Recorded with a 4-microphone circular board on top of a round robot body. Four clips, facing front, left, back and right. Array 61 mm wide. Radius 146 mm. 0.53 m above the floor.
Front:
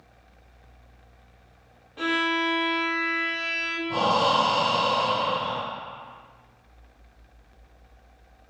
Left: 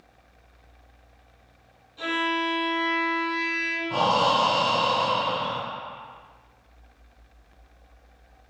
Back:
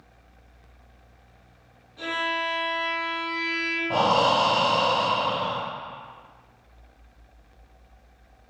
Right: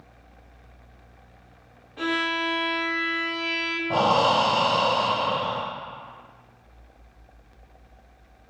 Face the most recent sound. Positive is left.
turn(degrees=-130)